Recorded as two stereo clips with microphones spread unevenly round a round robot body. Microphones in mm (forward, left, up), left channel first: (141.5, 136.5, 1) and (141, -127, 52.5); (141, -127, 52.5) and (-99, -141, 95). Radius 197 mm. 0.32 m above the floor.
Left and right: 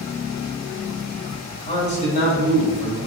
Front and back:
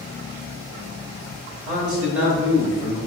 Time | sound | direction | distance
1.7 | a man speaking | 130° left | 1.2 m